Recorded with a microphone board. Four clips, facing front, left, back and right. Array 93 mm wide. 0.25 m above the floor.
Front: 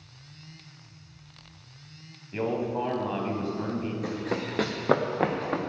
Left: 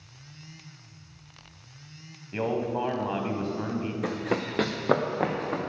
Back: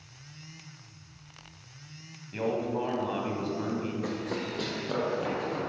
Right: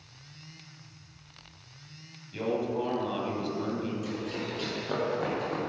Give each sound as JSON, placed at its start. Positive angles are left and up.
{"t": 2.3, "sound": "a man speaking", "azimuth_deg": 75, "distance_m": 1.7}
{"t": 4.0, "sound": "running footsteps", "azimuth_deg": 90, "distance_m": 1.3}